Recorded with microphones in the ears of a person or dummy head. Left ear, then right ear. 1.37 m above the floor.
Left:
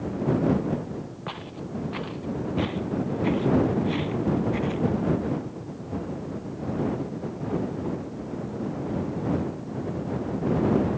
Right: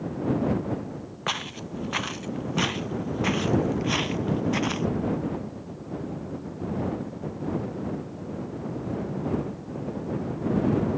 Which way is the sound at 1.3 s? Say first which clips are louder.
Right 9 dB; 65° right (ahead or behind).